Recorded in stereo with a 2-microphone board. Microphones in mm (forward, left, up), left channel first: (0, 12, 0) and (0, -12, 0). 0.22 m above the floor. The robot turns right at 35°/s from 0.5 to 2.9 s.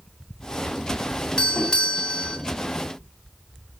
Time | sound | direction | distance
1.4 | a doorbell | 85° left | 1.9 m